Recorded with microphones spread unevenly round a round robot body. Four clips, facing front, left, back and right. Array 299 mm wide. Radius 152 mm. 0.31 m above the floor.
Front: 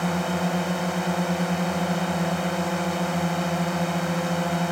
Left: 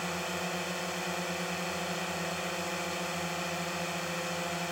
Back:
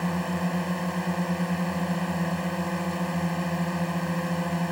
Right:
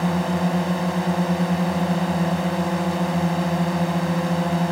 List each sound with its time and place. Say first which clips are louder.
0.0 s a drone: right 13 dB, front 3 dB; 80° right